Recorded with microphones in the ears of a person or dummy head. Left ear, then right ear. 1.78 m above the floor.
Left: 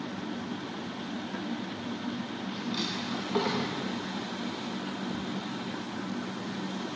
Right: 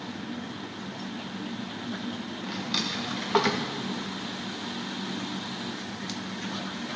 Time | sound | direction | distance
2.4 | a drawer | 50° right (ahead or behind) | 1.6 m